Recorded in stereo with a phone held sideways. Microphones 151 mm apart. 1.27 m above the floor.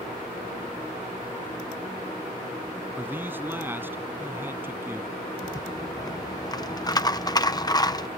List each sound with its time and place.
3.0 s a man speaking: 15° right (ahead or behind)
5.4 s a rattle: 25° left (ahead or behind)